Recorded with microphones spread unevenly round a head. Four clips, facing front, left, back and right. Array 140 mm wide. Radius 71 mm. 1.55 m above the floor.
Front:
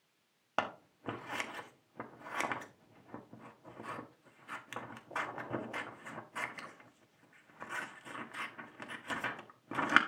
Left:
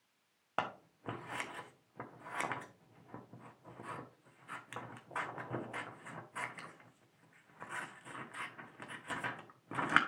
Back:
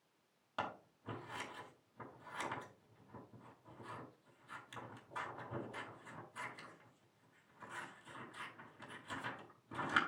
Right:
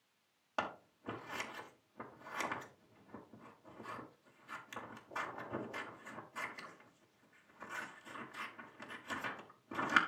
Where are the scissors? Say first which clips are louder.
Left 2 dB, front 7 dB; 20° left, 1.5 m.